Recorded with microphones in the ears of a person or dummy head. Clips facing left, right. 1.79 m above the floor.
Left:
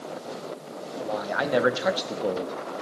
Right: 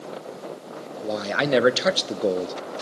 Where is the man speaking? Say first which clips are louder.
Right 3 dB; 30° right (ahead or behind), 0.5 m.